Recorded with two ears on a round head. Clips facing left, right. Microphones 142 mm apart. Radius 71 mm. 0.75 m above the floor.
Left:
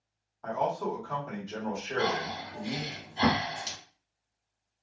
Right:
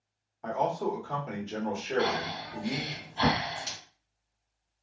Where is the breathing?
30° left (ahead or behind), 1.7 m.